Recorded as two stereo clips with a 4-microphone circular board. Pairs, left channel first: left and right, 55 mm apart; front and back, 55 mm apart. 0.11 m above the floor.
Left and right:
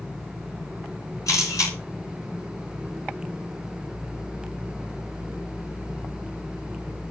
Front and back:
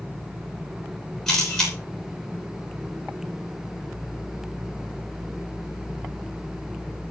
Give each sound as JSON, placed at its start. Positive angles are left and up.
{"t": 1.3, "sound": "a camera shutter", "azimuth_deg": 80, "distance_m": 10.0}